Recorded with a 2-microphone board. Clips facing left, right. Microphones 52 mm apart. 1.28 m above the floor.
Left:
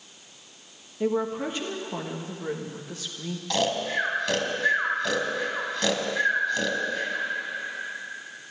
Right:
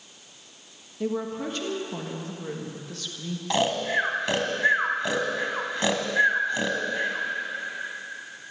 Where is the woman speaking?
15° left (ahead or behind), 1.6 m.